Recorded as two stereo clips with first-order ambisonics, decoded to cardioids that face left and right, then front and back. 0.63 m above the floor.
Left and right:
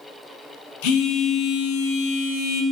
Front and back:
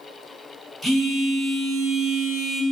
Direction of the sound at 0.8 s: 90° left.